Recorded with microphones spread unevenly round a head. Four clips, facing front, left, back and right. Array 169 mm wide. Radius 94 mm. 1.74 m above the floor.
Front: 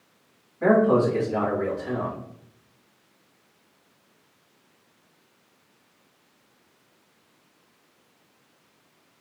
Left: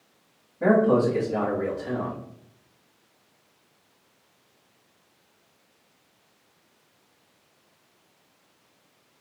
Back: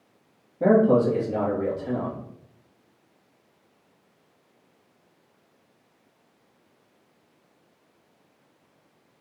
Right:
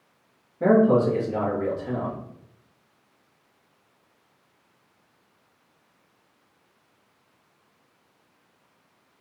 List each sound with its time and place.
0.6 s a man speaking: 170° right, 2 m